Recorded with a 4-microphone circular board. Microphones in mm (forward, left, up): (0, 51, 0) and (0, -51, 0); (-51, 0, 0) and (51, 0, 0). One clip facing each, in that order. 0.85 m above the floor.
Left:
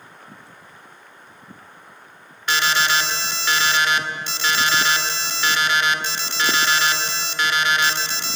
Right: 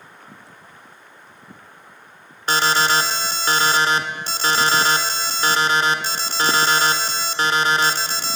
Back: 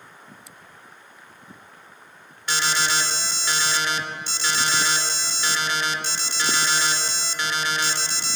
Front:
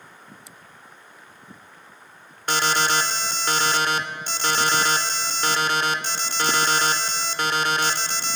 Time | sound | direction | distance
2.5 | an alarm | 40° right | 1.8 m